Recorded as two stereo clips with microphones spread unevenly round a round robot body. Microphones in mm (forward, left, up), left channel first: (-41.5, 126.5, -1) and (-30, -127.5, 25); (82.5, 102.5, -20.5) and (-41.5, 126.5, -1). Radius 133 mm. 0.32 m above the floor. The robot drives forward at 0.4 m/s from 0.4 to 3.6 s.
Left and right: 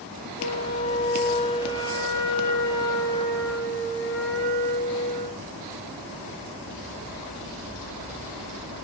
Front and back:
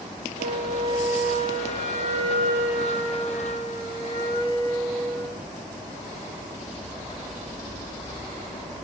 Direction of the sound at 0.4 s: 150° left.